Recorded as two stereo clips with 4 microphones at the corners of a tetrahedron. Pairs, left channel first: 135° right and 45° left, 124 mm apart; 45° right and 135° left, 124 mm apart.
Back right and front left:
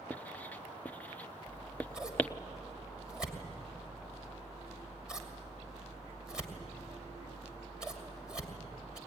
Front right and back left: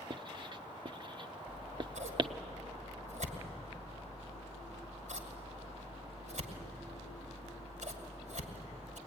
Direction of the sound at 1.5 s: 130° left.